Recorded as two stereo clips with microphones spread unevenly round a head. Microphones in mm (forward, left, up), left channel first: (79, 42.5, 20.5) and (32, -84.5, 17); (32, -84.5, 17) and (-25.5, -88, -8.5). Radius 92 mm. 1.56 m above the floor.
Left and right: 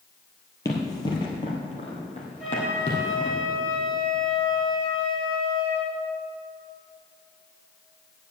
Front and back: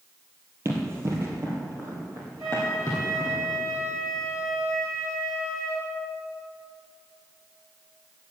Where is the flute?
155° left, 4.5 m.